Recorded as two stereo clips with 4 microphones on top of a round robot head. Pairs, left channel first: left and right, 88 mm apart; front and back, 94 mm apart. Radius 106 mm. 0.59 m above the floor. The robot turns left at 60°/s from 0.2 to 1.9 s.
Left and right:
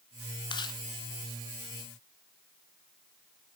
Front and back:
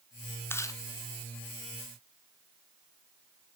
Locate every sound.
0.5 s chewing: 65° left, 1.3 m; by 0.8 s 45° left, 1.3 m